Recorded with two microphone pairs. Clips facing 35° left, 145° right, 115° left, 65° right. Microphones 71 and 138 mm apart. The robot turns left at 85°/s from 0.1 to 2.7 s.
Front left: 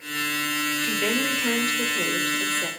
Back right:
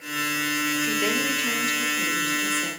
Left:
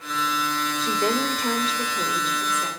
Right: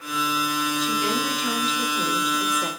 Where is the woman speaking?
145° left, 2.5 m; by 2.7 s 20° right, 2.5 m.